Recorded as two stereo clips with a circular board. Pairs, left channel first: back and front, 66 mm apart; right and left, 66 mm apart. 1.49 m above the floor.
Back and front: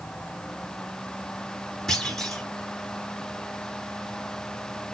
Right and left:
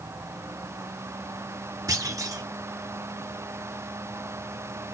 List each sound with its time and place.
1.9 s a clunk: 95° left, 1.5 m